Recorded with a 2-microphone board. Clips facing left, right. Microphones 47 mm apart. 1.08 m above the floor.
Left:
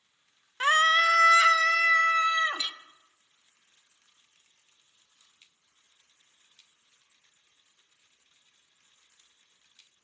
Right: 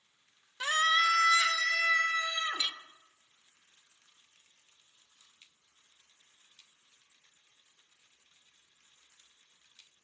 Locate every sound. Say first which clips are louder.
0.6 s a scream: left 5 dB; 45° left (ahead or behind), 0.7 m; by 2.6 s 60° left (ahead or behind), 1.8 m
2.6 s a clink: even; 15° right (ahead or behind), 0.8 m